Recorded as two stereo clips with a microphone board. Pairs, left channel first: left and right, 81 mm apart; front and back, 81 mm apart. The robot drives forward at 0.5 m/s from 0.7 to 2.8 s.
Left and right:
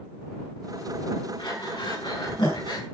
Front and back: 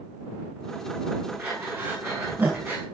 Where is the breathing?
110° left, 7 m; by 2.8 s 115° left, 7 m.